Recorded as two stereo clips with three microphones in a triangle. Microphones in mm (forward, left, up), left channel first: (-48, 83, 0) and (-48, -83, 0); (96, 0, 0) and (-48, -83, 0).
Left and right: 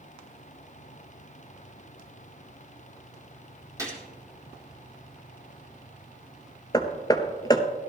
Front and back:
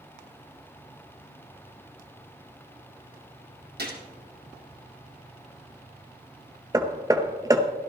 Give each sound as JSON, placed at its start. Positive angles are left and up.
{"t": 3.8, "sound": "a gunshot", "azimuth_deg": -160, "distance_m": 2.0}
{"t": 6.7, "sound": "hammering", "azimuth_deg": 150, "distance_m": 0.8}